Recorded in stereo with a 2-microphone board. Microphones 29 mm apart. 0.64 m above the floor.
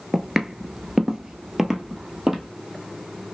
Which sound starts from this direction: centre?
Footsteps, at 0.1 s.